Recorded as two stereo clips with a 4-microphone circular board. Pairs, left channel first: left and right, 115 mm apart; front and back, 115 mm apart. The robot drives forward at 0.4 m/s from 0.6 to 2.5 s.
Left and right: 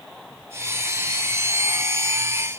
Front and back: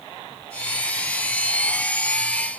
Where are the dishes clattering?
No dishes clattering in this recording.